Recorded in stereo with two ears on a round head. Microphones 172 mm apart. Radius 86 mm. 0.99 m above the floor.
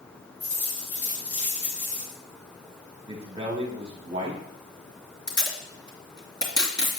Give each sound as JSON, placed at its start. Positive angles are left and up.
{"t": 0.4, "sound": "a dropped coin", "side_deg": 50, "distance_m": 5.0}
{"t": 3.1, "sound": "a man speaking", "side_deg": -30, "distance_m": 1.5}
{"t": 5.3, "sound": "tape being pulled", "side_deg": 20, "distance_m": 2.5}